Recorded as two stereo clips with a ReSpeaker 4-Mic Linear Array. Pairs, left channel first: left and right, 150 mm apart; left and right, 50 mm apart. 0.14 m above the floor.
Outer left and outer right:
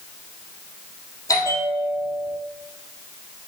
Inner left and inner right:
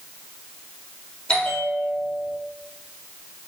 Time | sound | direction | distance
1.3 | a bell | 20° left (ahead or behind) | 3 m